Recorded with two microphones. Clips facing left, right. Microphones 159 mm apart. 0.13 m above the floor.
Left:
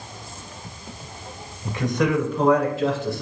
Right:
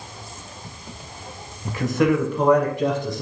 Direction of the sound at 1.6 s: Centre (ahead or behind).